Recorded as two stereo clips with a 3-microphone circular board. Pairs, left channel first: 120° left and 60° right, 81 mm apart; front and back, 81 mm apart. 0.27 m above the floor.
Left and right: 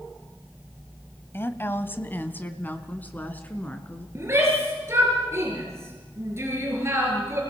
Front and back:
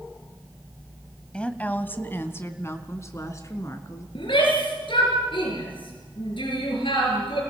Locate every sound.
1.3 s a woman speaking: 70° left, 1.2 m; by 4.0 s 45° left, 3 m
4.2 s a shout: 5° right, 5.5 m